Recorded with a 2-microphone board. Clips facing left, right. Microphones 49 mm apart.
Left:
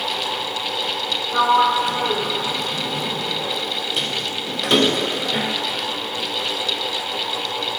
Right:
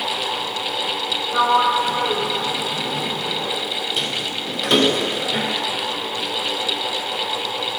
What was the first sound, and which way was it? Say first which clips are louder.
A sliding door: left 1 dB; centre (ahead or behind).